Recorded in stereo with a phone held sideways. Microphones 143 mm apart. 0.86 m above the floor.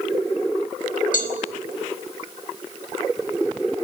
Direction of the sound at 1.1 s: 75° left (ahead or behind).